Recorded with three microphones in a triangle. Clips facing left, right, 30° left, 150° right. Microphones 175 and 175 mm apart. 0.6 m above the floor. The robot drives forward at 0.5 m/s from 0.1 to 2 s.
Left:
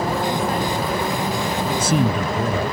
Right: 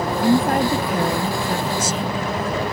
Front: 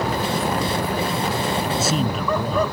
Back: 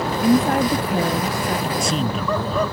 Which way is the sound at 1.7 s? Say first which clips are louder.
Left 4 dB, even; 115° left.